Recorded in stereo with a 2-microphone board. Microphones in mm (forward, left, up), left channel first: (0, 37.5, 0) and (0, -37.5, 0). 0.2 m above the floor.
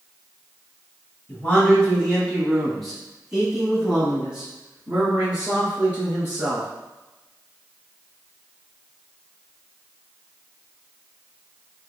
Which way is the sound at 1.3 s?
20° left (ahead or behind).